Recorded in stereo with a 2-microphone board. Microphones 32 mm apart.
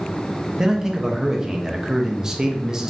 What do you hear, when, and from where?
0.6 s a man speaking: 20° right (ahead or behind), 0.5 m